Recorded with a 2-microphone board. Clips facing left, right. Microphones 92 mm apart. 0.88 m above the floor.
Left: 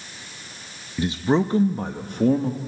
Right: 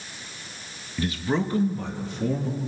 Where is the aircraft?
I don't hear an aircraft.